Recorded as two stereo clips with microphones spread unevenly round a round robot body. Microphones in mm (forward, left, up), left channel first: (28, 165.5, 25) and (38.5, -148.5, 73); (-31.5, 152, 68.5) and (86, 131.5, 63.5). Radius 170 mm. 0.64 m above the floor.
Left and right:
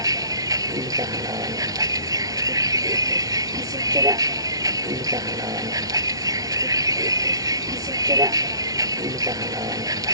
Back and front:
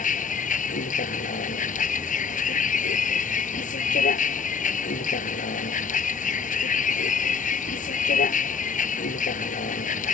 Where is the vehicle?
165° right.